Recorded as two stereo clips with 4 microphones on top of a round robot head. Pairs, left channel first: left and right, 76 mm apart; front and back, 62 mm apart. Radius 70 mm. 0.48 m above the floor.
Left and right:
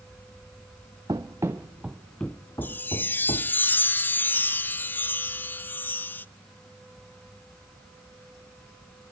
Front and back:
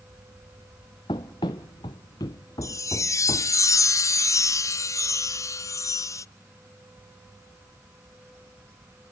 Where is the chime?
25° left, 0.5 m.